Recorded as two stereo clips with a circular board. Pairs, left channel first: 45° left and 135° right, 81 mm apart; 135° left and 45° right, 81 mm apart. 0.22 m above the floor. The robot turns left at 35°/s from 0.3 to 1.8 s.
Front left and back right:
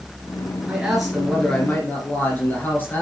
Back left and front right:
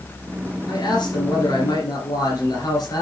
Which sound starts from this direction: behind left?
A man speaking, at 0.7 s.